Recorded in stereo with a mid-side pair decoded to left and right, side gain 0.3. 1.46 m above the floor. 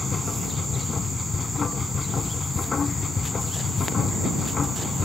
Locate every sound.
0.0 s a machine running: 55° left